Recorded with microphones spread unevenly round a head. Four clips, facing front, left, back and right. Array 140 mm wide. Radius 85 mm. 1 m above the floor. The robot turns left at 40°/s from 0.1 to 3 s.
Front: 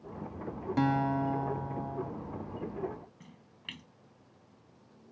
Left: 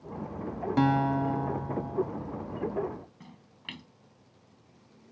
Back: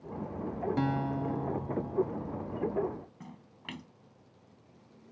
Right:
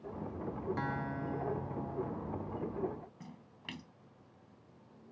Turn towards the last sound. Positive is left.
turn(degrees=180)